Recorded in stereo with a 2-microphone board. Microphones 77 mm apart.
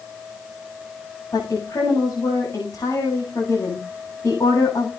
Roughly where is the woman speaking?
Left.